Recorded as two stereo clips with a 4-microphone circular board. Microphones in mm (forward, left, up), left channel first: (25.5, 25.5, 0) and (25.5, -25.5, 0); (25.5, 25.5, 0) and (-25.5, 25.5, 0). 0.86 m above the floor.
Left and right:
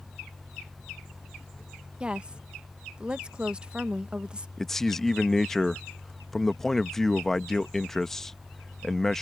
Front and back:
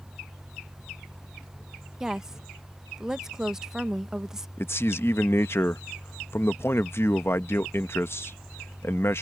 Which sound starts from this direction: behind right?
A woman speaking, at 2.0 s.